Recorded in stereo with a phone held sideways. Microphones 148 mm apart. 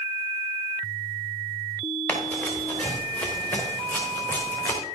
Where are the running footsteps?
10° left (ahead or behind), 5.5 m; by 4.8 s 15° left (ahead or behind), 4 m.